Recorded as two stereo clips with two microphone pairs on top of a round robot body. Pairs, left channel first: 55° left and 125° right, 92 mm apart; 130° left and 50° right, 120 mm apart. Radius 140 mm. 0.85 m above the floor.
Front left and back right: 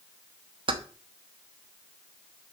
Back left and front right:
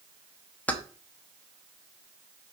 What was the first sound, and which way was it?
Keys jangling, 150° right.